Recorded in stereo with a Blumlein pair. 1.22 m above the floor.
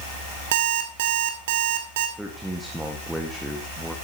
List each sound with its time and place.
0.5 s an alarm clock: 55° right, 2.5 m
2.2 s a man speaking: 5° right, 1.8 m